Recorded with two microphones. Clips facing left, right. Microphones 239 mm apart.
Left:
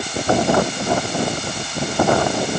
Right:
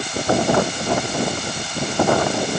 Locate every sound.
Only background noise.